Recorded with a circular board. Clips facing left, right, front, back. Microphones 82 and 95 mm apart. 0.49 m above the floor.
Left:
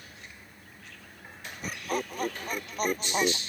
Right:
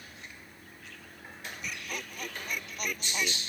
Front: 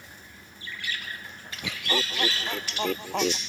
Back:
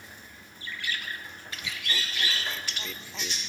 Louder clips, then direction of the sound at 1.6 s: Left 9 dB, front 6 dB; 35° left.